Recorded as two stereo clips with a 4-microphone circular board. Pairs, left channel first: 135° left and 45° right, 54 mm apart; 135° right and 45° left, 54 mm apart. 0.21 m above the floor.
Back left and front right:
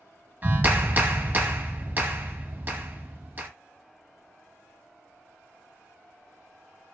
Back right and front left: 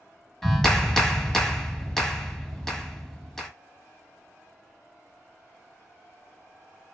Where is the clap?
60° right, 0.9 m.